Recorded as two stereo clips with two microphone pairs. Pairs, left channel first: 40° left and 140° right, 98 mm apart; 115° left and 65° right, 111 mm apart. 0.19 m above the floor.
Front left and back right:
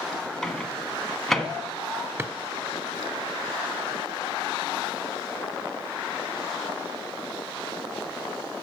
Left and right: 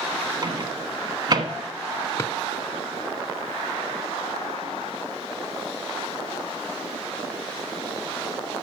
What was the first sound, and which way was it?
A microwave, 45° right.